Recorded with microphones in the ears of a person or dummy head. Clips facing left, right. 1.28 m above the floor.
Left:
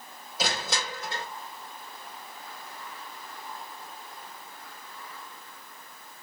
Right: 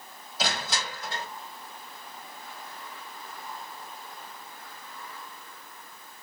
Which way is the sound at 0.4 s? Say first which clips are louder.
Left 1 dB; 80° left.